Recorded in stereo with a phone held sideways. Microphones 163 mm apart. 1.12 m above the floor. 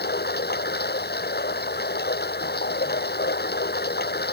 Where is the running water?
80° left.